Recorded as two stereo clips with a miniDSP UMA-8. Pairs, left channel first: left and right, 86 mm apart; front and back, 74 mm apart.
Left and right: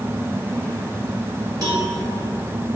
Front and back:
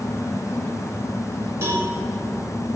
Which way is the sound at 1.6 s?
125° right.